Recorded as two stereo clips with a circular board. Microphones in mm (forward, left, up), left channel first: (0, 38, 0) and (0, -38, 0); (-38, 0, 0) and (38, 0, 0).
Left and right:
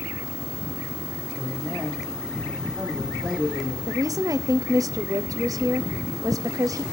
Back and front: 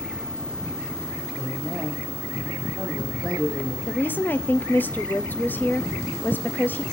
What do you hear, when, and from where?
1.3 s a woman speaking: 5° left, 5 m
3.9 s a woman speaking: 120° right, 0.6 m